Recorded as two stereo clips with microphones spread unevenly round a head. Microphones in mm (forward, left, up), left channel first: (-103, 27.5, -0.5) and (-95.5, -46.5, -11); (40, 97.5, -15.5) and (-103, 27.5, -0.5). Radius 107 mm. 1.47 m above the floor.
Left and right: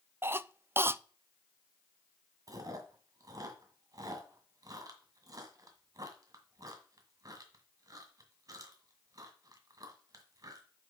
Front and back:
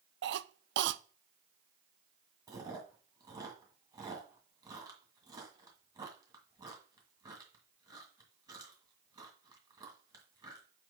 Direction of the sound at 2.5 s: 100° right.